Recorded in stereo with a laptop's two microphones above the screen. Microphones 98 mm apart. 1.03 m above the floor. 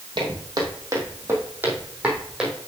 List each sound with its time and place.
0.2 s footsteps: 45° right (ahead or behind), 2.0 m; by 2.5 s 5° right (ahead or behind), 2.5 m